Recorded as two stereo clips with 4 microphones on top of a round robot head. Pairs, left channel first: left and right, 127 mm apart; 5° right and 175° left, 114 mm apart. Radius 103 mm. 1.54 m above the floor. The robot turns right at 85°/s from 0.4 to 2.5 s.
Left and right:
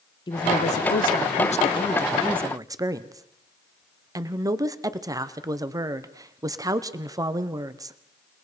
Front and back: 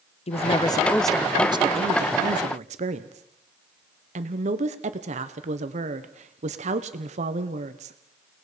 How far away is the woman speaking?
About 1.0 m.